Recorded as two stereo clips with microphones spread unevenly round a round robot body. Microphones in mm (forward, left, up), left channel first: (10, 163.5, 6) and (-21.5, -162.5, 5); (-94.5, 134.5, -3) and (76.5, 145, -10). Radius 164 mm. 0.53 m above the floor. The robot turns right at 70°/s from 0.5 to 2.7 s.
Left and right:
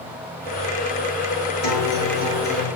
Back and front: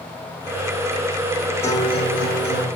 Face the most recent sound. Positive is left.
turn(degrees=-175)